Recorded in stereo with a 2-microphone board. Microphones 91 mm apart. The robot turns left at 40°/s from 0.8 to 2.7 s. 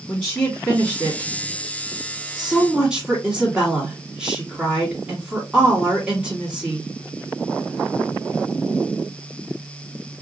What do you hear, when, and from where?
0.1 s a woman speaking: 15° left (ahead or behind), 1.5 m; by 6.9 s 10° right (ahead or behind), 1.5 m